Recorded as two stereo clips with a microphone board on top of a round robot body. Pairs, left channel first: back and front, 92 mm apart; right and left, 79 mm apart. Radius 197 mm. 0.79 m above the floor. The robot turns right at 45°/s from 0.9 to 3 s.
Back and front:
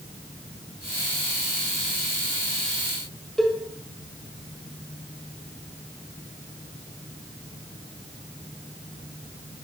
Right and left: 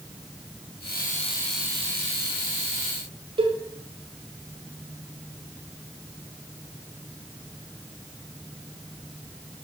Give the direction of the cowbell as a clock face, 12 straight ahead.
9 o'clock.